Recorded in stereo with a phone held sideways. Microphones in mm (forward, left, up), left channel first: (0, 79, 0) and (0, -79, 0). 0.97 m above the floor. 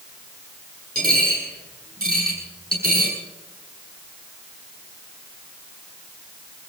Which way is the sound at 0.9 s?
70° right (ahead or behind).